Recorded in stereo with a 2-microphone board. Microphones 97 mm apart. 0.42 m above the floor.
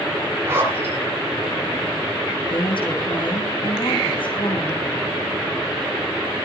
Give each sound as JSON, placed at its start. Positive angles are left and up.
{"t": 0.5, "sound": "a zipper", "side_deg": -25, "distance_m": 7.0}
{"t": 2.5, "sound": "a woman speaking", "side_deg": 60, "distance_m": 4.5}